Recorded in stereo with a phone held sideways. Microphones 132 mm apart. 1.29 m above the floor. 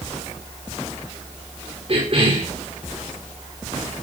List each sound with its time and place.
1.9 s a cough: 45° right (ahead or behind), 4.5 m